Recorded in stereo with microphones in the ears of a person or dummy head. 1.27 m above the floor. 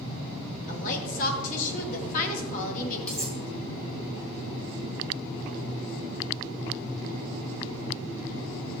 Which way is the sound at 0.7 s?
45° left (ahead or behind).